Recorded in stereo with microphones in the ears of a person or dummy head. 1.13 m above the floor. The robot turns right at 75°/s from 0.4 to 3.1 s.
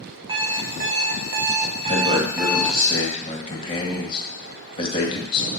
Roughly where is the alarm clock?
Behind right.